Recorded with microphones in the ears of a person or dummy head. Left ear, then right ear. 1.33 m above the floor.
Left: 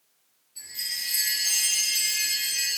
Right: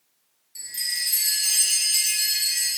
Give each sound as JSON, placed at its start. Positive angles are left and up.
{"t": 0.6, "sound": "a chime", "side_deg": -55, "distance_m": 3.0}